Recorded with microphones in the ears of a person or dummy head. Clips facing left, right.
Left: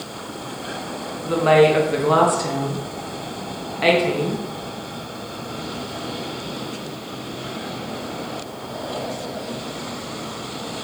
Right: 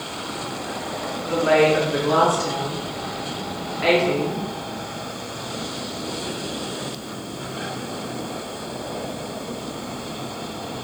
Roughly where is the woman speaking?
Left.